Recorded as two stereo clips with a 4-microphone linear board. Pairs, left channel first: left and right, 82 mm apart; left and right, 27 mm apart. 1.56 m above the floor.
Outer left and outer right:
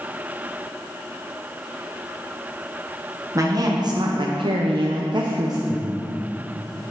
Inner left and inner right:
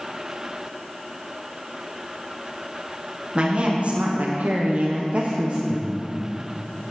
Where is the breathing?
15° left (ahead or behind), 2 m.